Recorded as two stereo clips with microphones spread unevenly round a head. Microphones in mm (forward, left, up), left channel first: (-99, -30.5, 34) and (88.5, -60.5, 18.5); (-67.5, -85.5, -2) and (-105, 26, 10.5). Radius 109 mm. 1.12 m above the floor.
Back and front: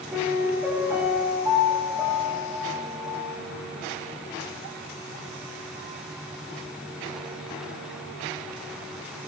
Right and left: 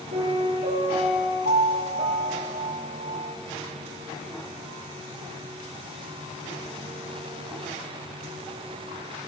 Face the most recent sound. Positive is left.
turn(degrees=70)